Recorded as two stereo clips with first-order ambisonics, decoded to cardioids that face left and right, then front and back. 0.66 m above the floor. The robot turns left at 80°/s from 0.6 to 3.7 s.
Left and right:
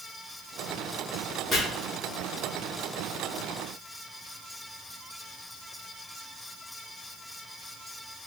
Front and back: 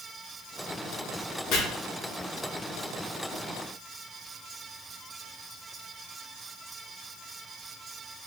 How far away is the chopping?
About 1.3 m.